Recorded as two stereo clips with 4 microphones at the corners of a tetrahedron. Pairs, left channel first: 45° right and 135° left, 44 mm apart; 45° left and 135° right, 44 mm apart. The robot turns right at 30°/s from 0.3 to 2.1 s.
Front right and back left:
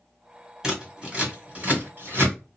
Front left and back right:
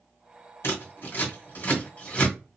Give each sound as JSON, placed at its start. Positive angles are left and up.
{"t": 0.6, "sound": "scissors", "azimuth_deg": 55, "distance_m": 1.9}